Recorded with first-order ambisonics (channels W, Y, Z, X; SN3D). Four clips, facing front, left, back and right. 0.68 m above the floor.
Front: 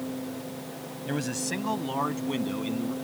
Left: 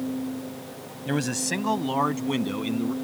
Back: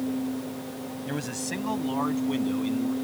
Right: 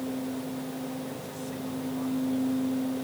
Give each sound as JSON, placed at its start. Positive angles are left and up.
{"t": 1.1, "sound": "a man speaking", "azimuth_deg": 85}